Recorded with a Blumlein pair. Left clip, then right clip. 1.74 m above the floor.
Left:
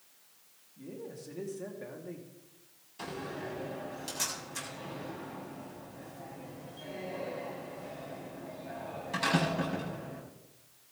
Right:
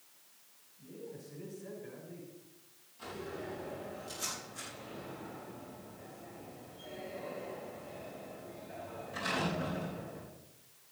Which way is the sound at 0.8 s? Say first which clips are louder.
Left 4 dB; 45° left.